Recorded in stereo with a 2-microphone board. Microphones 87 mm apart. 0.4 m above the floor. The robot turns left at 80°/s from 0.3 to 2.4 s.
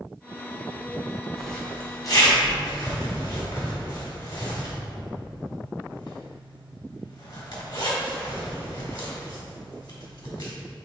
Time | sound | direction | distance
1.4 | a zipper | 5° right (ahead or behind) | 1.8 m